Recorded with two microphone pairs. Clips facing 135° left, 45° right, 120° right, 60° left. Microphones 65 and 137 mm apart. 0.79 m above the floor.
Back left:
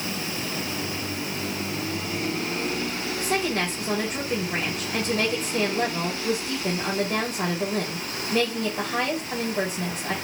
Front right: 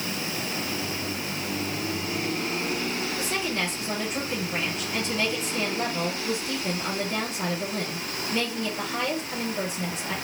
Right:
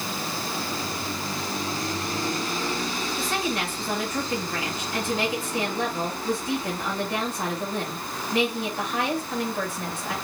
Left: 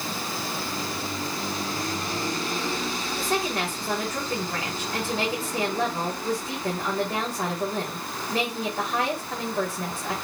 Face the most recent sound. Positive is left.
turn(degrees=105)